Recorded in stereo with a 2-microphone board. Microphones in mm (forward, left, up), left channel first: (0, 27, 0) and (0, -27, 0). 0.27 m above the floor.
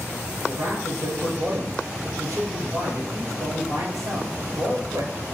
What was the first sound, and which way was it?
A man speaking, 75° right (ahead or behind).